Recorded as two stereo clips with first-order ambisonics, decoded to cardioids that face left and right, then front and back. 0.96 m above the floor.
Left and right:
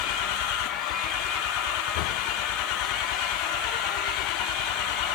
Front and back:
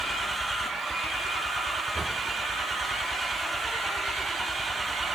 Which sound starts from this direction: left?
An engine running, at 0.0 s.